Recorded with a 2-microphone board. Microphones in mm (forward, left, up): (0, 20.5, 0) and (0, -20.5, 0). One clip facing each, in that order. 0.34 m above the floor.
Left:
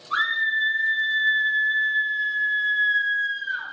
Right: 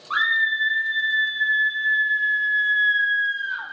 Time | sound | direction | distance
0.1 | a scream | 45° right (ahead or behind) | 2.5 m